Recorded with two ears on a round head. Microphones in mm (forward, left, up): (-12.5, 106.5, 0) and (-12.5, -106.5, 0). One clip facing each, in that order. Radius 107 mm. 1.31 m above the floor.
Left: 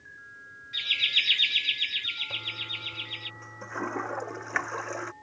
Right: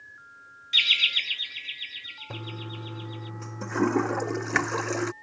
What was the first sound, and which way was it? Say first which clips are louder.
Laughter: right 3 dB; 45° right (ahead or behind).